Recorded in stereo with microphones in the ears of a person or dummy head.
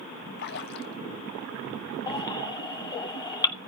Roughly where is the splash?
Left.